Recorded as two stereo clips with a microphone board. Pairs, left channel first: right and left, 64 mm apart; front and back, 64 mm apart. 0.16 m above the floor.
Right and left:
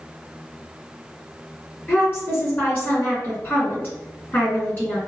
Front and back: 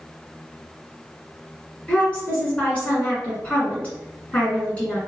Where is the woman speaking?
55° right, 1.9 m.